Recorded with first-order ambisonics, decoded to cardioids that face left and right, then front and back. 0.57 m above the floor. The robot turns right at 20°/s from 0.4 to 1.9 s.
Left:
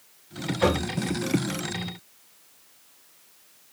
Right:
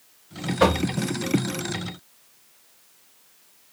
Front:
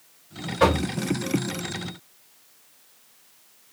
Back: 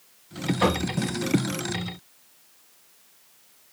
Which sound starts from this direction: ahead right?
Knocking, at 0.6 s.